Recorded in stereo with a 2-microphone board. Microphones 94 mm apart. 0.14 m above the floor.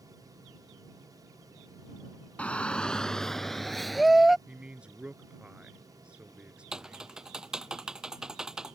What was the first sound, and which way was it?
A shout, 15° left (ahead or behind).